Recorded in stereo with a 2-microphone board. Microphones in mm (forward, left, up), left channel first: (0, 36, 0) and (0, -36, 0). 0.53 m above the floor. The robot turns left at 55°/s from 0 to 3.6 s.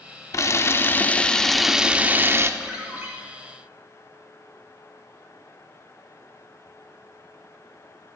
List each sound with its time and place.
0.3 s a camera shutter: 70° left, 0.5 m; by 2.5 s 50° right, 0.5 m
2.6 s a ringtone: 5° right (ahead or behind), 2.5 m; by 3.1 s 30° right (ahead or behind), 2.5 m